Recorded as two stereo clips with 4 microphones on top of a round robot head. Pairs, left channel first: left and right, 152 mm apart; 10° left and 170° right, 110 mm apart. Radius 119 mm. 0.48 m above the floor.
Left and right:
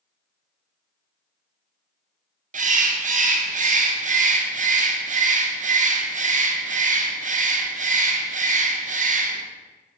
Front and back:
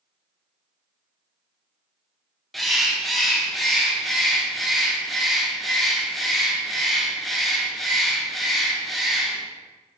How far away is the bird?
About 0.7 m.